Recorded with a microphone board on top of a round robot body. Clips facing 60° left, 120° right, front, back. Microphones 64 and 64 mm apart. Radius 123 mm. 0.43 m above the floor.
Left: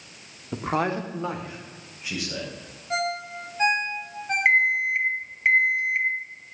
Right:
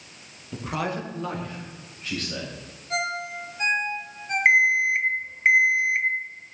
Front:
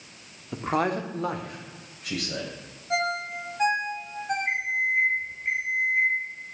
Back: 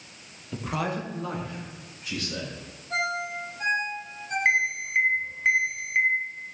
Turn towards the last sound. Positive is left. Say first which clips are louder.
# right 2 dB, back 4 dB
turn(degrees=170)